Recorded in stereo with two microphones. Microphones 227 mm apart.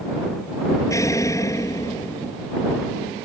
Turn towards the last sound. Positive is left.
turn(degrees=15)  # may be behind; listen again after turning